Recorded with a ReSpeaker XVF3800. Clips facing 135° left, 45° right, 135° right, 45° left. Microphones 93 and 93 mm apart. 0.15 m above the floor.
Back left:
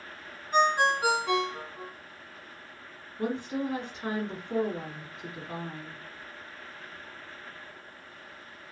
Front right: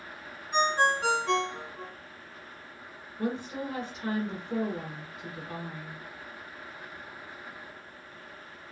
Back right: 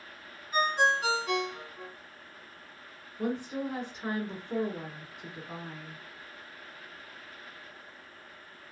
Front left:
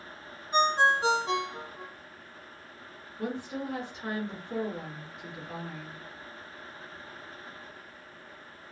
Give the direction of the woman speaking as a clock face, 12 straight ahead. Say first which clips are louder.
Back left 2 dB, back right 2 dB; 7 o'clock.